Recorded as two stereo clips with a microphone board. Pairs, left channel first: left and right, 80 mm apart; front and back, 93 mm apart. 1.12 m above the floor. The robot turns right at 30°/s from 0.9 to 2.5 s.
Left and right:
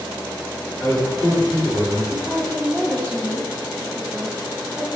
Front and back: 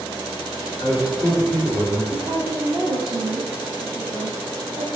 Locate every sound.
0.8 s a man speaking: 45° left, 1.6 m; by 2.0 s 80° left, 1.6 m
2.1 s a woman speaking: 150° left, 0.6 m; by 4.9 s 165° left, 0.6 m